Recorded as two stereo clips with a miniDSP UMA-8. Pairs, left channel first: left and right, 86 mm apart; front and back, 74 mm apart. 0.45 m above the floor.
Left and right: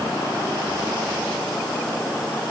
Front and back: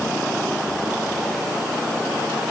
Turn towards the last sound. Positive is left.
No sound to turn to.